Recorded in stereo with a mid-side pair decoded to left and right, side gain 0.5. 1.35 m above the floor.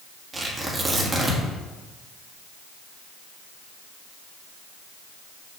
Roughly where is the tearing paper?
Ahead right.